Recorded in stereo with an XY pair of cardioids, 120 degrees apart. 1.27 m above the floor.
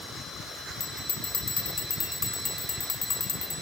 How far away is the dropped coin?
No dropped coin in this recording.